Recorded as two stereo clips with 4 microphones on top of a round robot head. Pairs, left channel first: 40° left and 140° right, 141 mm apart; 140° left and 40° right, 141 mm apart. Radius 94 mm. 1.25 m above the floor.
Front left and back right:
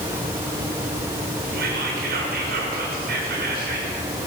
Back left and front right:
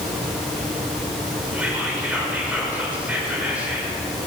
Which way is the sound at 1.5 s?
125° right.